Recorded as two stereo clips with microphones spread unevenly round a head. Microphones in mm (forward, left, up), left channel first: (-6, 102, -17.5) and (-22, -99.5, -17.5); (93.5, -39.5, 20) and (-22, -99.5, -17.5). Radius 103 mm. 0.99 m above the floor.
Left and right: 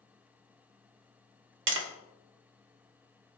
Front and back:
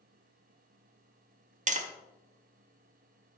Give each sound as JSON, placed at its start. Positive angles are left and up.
{"t": 1.7, "sound": "tapping", "azimuth_deg": -125, "distance_m": 1.6}